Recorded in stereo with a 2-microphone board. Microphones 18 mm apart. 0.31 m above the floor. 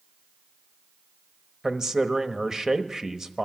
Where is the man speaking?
35° right (ahead or behind), 1.0 m.